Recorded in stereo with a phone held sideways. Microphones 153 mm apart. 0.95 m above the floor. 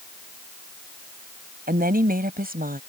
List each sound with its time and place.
1.7 s a woman speaking: 75° right (ahead or behind); by 2.8 s 80° right